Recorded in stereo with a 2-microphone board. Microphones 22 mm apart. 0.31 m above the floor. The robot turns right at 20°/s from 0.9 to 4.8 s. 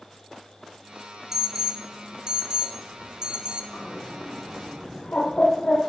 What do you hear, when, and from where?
1.3 s an alarm: 155° right, 2.5 m; by 3.6 s 105° right, 2.5 m
3.7 s a bird: 85° left, 6.5 m; by 5.8 s 70° left (ahead or behind), 6.5 m